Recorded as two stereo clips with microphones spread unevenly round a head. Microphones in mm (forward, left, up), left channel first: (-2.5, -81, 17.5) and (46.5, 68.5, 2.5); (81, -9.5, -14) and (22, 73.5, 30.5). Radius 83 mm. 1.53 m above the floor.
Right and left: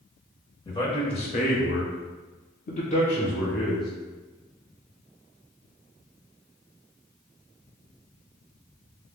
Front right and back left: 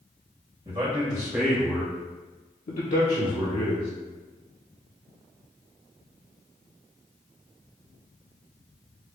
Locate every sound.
0.7 s a man speaking: 175° right, 1.4 m; by 3.9 s 40° right, 1.5 m